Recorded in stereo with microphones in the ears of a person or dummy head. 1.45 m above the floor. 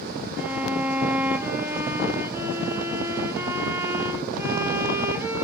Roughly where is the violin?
Centre.